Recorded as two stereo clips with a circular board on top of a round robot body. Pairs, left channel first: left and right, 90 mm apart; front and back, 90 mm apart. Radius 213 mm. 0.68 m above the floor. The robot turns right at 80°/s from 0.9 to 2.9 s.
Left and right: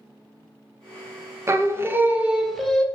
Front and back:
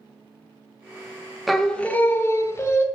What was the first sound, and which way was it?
Singing, 90° right.